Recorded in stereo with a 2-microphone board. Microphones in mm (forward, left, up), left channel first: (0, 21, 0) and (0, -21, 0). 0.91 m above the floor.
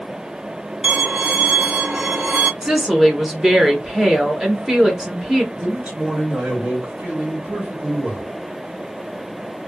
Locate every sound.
0.8 s a violin: 25° right (ahead or behind), 0.5 m
2.6 s a woman speaking: 15° right (ahead or behind), 0.7 m
5.6 s a man speaking: 35° right (ahead or behind), 1.4 m